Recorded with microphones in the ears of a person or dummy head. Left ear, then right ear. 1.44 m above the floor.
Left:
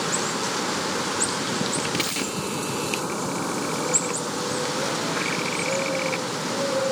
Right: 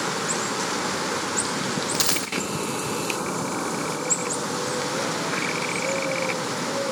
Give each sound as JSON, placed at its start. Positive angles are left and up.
{"t": 1.9, "sound": "a dropped coin", "side_deg": -35, "distance_m": 2.5}